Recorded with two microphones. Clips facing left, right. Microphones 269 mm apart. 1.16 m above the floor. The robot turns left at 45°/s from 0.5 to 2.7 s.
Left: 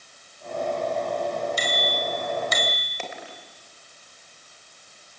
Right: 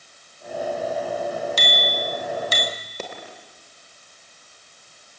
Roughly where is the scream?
I don't hear a scream.